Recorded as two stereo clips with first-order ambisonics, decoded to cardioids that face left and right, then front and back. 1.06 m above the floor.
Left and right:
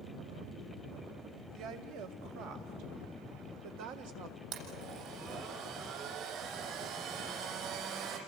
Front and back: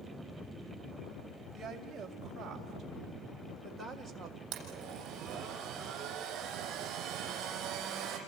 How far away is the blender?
About 7.5 m.